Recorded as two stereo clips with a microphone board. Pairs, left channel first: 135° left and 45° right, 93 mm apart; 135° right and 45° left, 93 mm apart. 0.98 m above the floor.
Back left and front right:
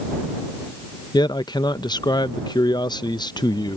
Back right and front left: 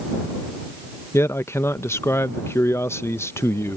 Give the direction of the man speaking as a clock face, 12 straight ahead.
6 o'clock.